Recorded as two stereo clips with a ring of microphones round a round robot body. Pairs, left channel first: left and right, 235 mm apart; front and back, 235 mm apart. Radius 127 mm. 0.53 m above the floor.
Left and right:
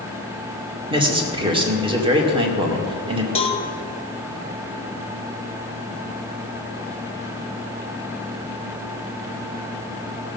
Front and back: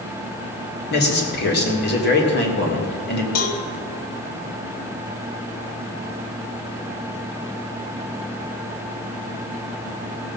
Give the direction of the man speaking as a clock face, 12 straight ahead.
1 o'clock.